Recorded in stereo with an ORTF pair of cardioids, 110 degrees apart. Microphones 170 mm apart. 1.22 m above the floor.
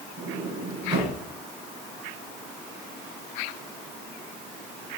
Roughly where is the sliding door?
Ahead right.